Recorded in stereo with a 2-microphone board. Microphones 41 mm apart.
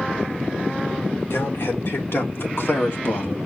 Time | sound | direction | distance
1.3 | a man speaking | 70° left (ahead or behind) | 3 m